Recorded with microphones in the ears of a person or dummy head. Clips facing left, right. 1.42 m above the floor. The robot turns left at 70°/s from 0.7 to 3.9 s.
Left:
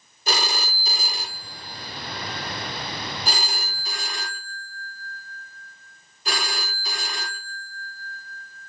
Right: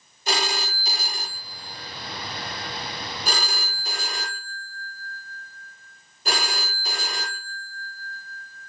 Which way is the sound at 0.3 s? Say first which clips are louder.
Right 1 dB; 80° left.